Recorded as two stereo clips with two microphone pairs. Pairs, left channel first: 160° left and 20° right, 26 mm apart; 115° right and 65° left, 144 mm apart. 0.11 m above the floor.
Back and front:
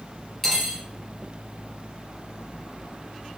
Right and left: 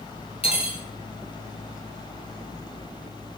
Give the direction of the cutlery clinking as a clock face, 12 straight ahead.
4 o'clock.